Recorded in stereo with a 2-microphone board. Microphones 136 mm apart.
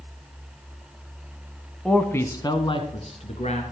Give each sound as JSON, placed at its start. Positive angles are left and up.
{"t": 1.9, "sound": "a man speaking", "side_deg": 5, "distance_m": 1.4}